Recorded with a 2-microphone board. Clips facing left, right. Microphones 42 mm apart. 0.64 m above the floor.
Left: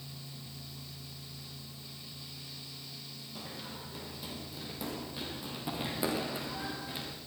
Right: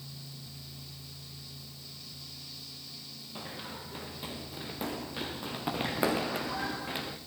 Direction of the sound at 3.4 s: 30° right (ahead or behind).